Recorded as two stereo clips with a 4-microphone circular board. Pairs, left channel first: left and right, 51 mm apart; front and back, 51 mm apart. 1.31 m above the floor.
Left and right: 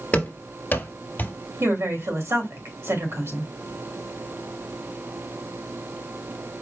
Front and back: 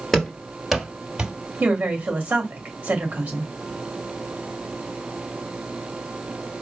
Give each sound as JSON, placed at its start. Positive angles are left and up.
{"t": 0.1, "sound": "running footsteps", "azimuth_deg": 75, "distance_m": 1.4}
{"t": 1.6, "sound": "a woman speaking", "azimuth_deg": -115, "distance_m": 2.5}